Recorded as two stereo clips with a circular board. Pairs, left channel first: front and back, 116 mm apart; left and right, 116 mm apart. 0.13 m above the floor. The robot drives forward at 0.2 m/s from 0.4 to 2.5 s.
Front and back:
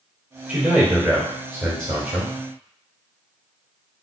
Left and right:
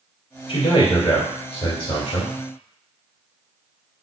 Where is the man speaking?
110° left, 2 m; by 2.3 s 120° left, 2 m.